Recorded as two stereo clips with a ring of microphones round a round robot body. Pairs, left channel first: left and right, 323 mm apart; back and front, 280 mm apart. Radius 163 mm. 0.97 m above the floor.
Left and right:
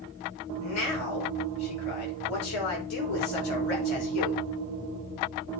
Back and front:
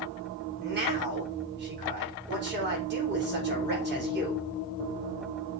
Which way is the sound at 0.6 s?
50° left.